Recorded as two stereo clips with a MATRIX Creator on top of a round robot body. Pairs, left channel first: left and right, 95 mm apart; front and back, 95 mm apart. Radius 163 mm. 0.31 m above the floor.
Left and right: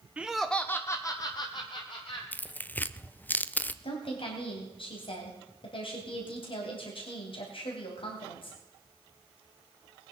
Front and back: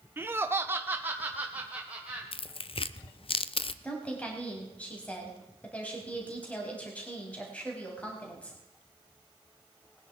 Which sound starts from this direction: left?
A woman speaking, at 3.8 s.